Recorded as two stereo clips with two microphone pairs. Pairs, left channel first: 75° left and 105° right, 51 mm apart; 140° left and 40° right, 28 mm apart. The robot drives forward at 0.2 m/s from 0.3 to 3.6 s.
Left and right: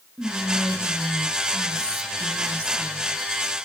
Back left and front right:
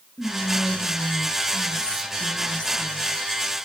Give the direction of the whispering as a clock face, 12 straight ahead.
5 o'clock.